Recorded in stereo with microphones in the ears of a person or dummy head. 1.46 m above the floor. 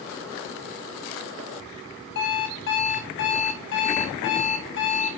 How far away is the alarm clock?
About 2.5 m.